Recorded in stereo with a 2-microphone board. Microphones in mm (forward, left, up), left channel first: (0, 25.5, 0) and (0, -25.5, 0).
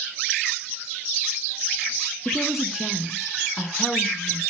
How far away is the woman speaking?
About 1.3 m.